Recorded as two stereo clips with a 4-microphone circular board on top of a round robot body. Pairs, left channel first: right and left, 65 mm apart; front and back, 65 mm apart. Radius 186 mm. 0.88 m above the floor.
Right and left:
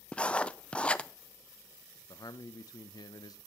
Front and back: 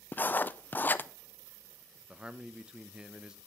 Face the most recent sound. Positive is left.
turn(degrees=-105)